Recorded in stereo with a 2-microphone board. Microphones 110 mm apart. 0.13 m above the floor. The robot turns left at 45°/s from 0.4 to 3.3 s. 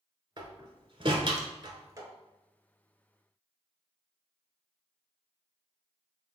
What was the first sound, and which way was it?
A door slam, 45° right (ahead or behind).